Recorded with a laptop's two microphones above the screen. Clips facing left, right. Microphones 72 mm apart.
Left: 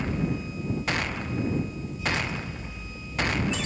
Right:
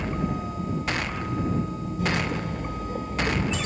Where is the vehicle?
50° right (ahead or behind).